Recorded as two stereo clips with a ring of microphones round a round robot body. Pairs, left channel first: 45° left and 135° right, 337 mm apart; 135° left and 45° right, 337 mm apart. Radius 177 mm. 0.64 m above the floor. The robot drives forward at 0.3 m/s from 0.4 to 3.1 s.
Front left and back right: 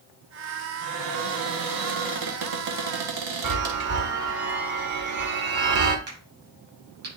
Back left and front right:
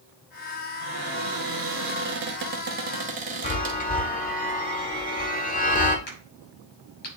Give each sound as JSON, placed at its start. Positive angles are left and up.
{"t": 0.8, "sound": "a cupboard door", "azimuth_deg": -90, "distance_m": 1.7}
{"t": 3.4, "sound": "a chime", "azimuth_deg": -160, "distance_m": 1.5}
{"t": 6.1, "sound": "a crack", "azimuth_deg": 165, "distance_m": 6.0}